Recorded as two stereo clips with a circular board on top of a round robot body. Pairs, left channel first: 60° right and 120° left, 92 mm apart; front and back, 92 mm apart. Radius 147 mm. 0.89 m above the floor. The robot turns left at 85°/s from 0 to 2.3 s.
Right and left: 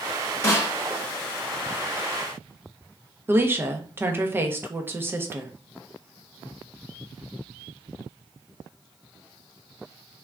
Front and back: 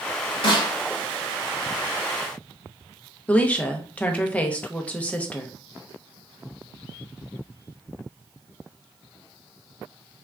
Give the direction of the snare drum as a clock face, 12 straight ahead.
12 o'clock.